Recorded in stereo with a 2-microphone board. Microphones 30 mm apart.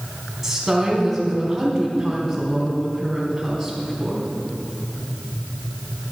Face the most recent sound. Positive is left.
turn(degrees=-10)  # may be behind; listen again after turning